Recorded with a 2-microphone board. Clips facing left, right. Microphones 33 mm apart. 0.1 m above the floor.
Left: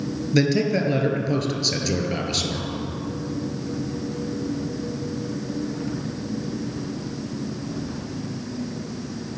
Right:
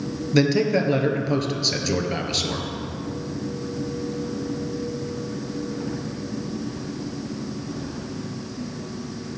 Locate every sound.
0.3 s a man speaking: 5° right (ahead or behind), 1.6 m